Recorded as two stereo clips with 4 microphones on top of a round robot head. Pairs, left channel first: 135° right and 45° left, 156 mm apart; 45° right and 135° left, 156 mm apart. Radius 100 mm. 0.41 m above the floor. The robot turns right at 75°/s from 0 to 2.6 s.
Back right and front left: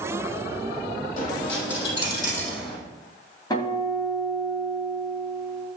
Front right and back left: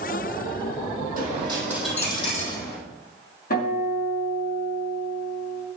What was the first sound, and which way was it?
A dropped coin, 175° left.